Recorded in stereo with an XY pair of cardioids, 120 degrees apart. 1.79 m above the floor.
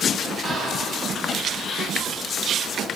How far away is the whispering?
About 3 m.